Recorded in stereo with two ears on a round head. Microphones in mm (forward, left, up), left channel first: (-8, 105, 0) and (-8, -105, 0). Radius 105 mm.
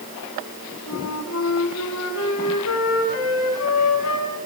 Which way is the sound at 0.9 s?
65° left (ahead or behind).